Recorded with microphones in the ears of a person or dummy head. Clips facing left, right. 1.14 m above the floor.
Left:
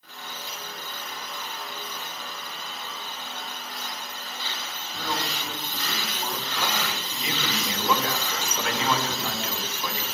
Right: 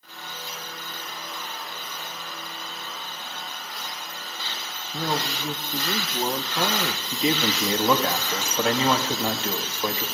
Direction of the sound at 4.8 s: 30° right (ahead or behind).